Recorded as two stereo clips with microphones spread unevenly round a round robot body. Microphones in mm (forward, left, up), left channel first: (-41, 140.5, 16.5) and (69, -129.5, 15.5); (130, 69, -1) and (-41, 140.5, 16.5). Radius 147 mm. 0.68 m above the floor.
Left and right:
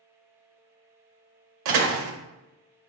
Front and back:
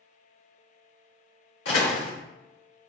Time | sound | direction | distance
1.6 | a door slam | 70° right | 0.8 m